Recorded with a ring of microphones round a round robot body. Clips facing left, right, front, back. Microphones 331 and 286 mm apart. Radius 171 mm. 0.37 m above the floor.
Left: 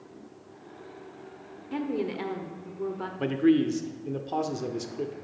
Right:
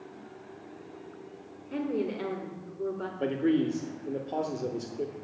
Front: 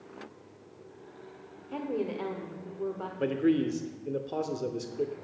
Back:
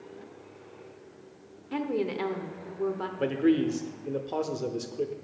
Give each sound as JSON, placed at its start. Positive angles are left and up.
{"t": 1.7, "sound": "a woman speaking", "azimuth_deg": 155, "distance_m": 1.1}
{"t": 3.2, "sound": "a man speaking", "azimuth_deg": 90, "distance_m": 0.8}